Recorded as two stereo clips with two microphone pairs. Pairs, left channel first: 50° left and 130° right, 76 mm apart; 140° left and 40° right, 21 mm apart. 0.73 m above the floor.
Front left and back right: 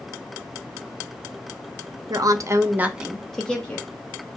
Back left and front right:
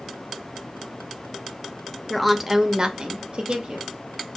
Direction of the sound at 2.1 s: 130° right.